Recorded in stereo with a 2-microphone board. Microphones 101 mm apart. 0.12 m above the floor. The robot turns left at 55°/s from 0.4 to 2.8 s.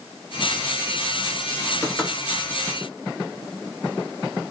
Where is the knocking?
25° left (ahead or behind), 1.5 m; by 2.1 s 15° left (ahead or behind), 1.5 m.